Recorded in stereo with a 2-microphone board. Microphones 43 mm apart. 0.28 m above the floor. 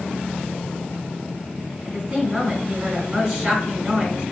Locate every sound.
1.9 s a woman speaking: 5° right (ahead or behind), 1.5 m